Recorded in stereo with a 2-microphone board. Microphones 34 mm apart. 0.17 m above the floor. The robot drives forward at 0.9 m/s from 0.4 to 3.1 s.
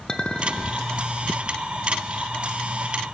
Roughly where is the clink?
Left.